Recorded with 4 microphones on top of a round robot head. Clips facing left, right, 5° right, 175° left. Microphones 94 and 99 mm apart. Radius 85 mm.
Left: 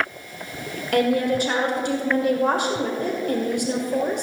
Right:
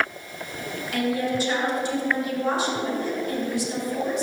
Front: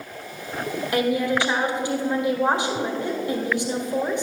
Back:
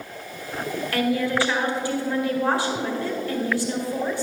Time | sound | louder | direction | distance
0.9 | a woman speaking | left 5 dB, front 1 dB | 65° left | 1.7 m